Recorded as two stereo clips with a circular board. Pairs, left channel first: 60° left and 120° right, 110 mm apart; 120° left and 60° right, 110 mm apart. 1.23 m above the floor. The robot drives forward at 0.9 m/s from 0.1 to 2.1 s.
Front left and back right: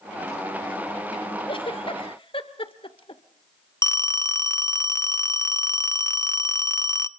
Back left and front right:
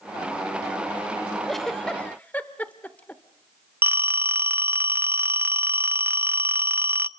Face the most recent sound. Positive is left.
turn(degrees=5)